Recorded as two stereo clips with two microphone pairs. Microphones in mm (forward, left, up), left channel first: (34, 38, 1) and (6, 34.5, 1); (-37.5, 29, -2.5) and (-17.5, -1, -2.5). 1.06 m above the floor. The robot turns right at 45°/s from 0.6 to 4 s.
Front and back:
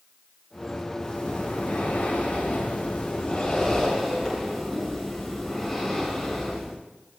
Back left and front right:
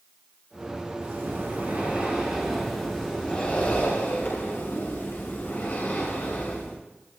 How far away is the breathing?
About 8 m.